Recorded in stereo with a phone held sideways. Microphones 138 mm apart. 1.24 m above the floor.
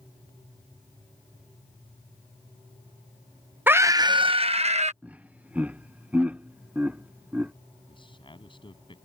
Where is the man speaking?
35° left (ahead or behind).